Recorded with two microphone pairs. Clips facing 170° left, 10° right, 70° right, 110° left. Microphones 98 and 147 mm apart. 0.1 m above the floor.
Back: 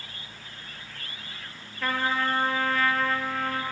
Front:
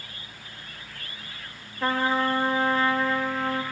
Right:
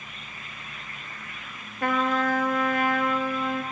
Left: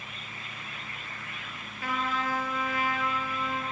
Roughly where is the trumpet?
Ahead right.